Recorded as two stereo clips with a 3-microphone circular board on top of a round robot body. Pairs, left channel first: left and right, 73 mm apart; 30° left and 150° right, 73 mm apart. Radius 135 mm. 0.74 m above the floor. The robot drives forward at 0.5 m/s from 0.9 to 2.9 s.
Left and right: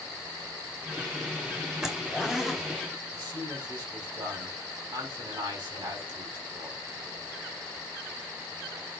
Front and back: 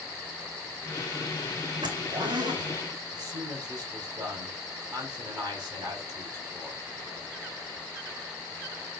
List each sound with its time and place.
1.8 s a zipper: 175° right, 1.8 m
3.1 s a man speaking: 115° right, 5.5 m